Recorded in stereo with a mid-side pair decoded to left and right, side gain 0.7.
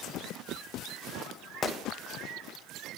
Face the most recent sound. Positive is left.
turn(degrees=30)